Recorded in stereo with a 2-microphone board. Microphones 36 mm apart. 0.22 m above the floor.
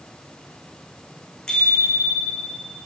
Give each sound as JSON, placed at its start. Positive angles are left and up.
{"t": 1.5, "sound": "a bicycle bell", "side_deg": 25, "distance_m": 10.0}